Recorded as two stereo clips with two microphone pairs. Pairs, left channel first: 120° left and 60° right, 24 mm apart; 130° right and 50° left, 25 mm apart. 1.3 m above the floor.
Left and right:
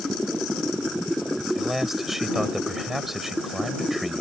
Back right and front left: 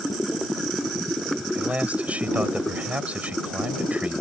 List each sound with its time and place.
1.6 s a man speaking: 20° left